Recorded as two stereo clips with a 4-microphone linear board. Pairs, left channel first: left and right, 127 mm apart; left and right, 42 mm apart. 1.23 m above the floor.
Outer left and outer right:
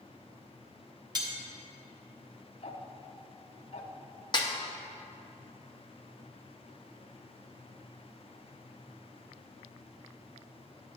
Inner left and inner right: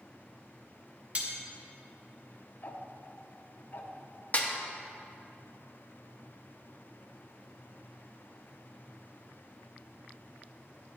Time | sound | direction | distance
1.1 | cutlery clinking | 35° right (ahead or behind) | 0.9 m
2.6 | ticking | 55° left (ahead or behind) | 0.6 m
4.3 | a snare drum | 35° left (ahead or behind) | 0.6 m